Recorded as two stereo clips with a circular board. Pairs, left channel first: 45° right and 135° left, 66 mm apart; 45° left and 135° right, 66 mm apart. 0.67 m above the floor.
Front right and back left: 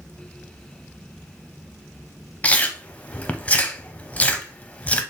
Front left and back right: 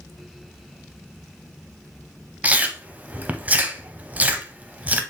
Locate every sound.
2.4 s chewing: 90° right, 0.5 m